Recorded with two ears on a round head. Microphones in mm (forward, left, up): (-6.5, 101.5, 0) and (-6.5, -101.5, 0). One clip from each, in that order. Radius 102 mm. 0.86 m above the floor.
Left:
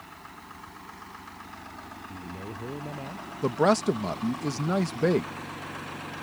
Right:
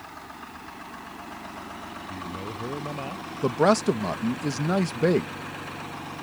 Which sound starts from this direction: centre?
A man speaking, at 3.4 s.